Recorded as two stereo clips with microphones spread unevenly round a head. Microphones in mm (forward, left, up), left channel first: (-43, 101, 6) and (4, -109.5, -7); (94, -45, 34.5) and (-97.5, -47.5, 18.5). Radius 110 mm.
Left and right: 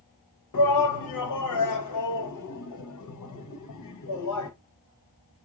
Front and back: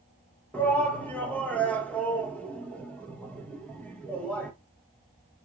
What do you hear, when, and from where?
0.5 s a shout: 85° left, 1.0 m